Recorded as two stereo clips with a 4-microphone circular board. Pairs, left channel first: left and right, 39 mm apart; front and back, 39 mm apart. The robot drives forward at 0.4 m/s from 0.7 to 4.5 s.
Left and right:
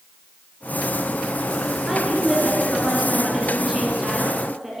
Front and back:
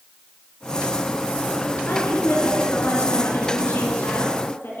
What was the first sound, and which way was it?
A woman speaking, 10° right.